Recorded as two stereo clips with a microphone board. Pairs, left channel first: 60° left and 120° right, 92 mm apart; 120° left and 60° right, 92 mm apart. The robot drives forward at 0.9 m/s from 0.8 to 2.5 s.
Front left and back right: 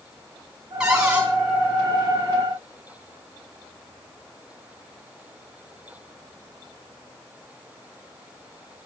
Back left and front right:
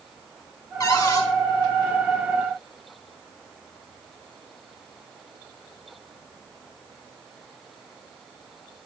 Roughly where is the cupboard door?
Behind.